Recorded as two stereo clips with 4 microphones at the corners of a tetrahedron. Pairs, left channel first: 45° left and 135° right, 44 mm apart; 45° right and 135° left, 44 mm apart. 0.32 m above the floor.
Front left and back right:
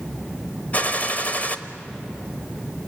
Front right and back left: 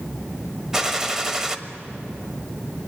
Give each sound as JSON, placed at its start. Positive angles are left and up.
{"t": 0.7, "sound": "a gunshot", "azimuth_deg": 65, "distance_m": 1.2}